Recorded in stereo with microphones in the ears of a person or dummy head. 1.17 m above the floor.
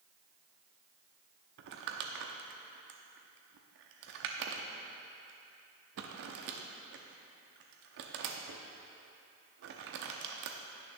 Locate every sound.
1.6 s crumpling: 55° right (ahead or behind), 0.8 m